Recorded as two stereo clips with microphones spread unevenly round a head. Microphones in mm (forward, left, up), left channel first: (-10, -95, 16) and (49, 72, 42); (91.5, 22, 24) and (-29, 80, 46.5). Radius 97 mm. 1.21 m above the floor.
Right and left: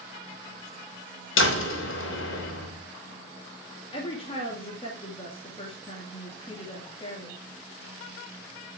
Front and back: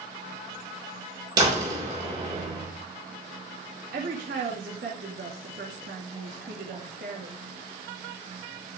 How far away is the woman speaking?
About 2 m.